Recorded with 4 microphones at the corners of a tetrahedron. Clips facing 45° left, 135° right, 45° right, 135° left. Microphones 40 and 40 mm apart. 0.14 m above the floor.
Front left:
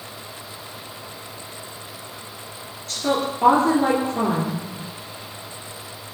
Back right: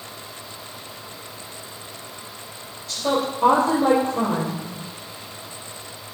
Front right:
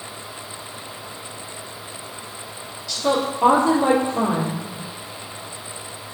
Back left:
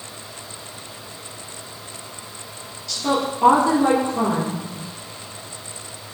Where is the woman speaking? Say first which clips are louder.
Even, front right 1 dB; 45° left, 2.5 m.